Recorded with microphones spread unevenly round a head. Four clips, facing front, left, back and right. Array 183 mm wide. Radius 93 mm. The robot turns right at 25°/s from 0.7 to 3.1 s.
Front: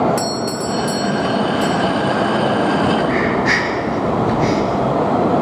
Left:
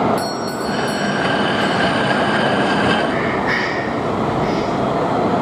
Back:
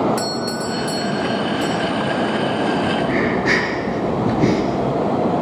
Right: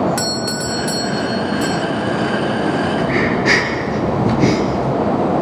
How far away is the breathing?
About 4.5 m.